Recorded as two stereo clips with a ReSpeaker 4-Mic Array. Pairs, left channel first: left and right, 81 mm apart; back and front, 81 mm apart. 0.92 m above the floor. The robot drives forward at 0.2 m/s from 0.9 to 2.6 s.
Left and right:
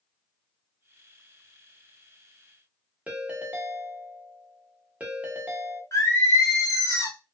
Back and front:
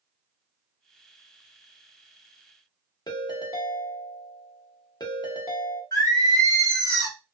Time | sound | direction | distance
3.1 | a ringtone | 160° right | 0.8 m
5.9 | singing | 140° left | 1.2 m